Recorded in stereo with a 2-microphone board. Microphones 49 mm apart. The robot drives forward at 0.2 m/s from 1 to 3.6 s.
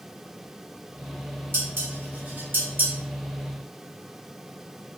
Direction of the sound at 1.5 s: 50° right (ahead or behind).